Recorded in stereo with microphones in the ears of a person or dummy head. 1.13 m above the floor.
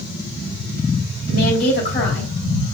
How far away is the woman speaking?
About 3 m.